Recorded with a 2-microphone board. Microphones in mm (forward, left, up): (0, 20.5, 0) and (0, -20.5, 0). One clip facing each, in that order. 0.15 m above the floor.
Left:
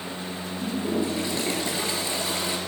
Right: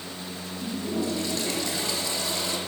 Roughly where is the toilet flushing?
Left.